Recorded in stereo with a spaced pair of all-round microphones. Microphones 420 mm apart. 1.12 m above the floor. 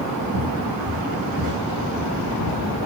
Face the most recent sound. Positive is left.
turn(degrees=-30)  # may be behind; listen again after turning